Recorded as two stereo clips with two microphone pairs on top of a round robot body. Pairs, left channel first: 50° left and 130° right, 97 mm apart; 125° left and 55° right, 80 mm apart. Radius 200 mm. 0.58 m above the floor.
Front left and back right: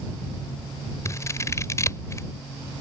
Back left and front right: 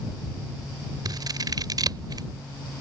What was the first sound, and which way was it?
Scissors, 15° right.